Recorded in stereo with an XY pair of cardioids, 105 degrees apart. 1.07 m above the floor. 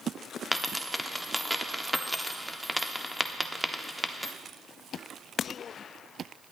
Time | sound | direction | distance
0.5 | a dropped coin | straight ahead | 1.1 m